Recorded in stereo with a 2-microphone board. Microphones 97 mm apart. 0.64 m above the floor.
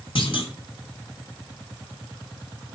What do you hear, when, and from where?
0.1 s a clunk: 65° left (ahead or behind), 1.4 m